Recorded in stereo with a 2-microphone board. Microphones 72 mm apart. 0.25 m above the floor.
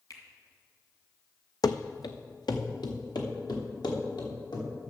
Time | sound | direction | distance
0.1 | a finger snap | 55° left (ahead or behind) | 2 m
1.6 | running footsteps | 65° left (ahead or behind) | 0.6 m